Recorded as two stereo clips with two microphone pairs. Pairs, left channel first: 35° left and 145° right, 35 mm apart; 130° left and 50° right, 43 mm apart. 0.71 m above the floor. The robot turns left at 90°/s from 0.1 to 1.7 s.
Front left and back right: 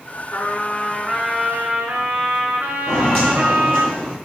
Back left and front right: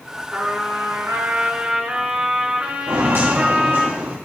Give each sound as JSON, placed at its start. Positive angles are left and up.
{"t": 0.3, "sound": "a trumpet", "azimuth_deg": 15, "distance_m": 2.0}
{"t": 2.9, "sound": "footsteps", "azimuth_deg": -45, "distance_m": 3.5}